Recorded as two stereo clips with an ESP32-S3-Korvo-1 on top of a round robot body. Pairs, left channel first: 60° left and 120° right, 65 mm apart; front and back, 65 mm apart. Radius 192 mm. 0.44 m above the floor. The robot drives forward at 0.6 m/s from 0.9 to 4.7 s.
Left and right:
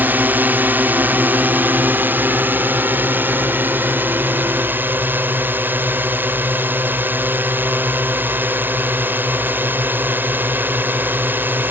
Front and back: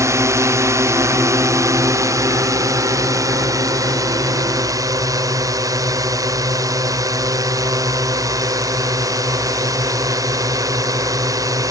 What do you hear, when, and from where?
0.0 s a drone: 175° right